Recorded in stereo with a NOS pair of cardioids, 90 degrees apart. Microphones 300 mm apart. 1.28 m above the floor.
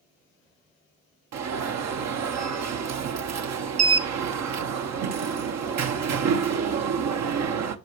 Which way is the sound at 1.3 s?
65° right.